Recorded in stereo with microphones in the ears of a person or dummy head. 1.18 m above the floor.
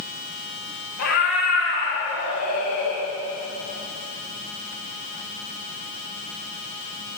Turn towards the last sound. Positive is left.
turn(degrees=55)  # may be behind; listen again after turning